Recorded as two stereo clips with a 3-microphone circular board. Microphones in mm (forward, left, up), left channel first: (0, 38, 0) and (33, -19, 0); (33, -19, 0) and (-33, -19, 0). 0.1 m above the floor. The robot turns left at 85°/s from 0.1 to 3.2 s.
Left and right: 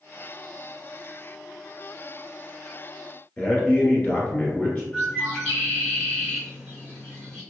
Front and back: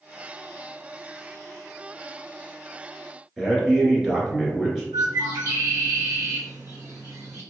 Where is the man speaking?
110° left, 1.3 m.